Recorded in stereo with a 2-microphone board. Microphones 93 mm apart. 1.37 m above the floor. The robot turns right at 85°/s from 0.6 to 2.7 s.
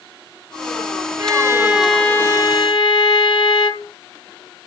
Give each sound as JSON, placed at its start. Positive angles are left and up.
{"t": 1.2, "sound": "a violin", "azimuth_deg": -60, "distance_m": 1.2}